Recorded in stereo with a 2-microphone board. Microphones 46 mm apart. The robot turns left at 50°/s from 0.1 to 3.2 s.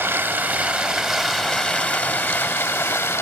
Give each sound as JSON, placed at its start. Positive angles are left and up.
{"t": 0.0, "sound": "running water", "azimuth_deg": -125, "distance_m": 0.9}